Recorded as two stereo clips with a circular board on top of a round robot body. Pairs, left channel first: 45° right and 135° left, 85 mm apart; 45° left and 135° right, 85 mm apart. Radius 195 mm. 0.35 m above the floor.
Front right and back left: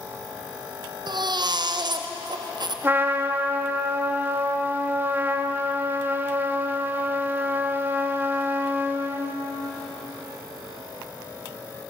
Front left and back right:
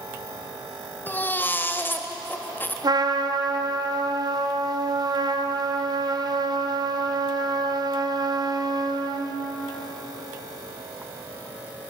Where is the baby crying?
110° left, 2 m.